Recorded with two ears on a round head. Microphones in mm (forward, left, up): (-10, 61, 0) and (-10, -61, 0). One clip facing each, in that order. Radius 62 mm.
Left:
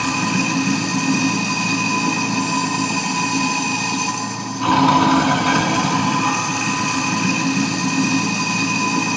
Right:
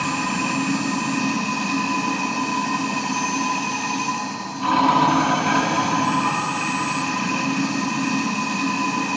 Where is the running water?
60° left (ahead or behind), 2 m.